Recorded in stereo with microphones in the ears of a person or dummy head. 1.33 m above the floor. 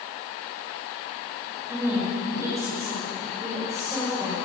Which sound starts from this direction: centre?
A woman speaking, at 1.7 s.